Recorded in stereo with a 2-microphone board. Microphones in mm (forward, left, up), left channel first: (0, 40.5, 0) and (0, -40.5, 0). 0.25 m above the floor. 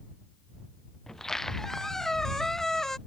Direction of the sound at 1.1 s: 5° left (ahead or behind).